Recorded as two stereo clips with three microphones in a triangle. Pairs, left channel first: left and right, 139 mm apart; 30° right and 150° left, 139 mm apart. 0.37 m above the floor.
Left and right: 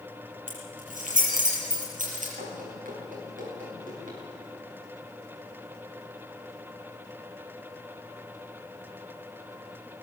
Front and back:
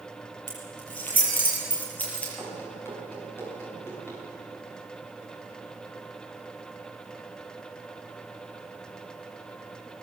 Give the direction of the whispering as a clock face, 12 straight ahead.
I don't hear whispering.